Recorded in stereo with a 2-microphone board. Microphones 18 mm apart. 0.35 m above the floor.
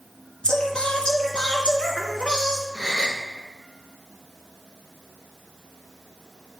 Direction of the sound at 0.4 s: 80° left.